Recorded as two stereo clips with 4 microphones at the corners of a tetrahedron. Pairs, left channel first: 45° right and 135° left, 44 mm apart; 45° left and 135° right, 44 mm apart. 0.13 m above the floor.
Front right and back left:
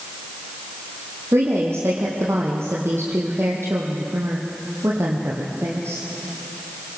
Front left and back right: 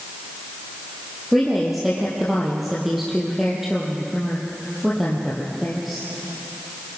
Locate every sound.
1.3 s a woman speaking: 140° left, 4 m